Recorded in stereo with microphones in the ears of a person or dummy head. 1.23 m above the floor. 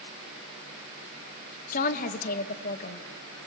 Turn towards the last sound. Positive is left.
turn(degrees=55)  # may be behind; listen again after turning